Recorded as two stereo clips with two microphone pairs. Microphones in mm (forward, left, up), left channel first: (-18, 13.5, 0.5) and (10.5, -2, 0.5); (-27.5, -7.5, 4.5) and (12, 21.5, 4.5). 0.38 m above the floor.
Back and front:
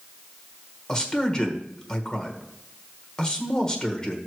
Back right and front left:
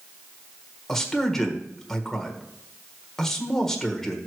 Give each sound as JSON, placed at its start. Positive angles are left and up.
{"t": 0.9, "sound": "a man speaking", "azimuth_deg": 150, "distance_m": 1.2}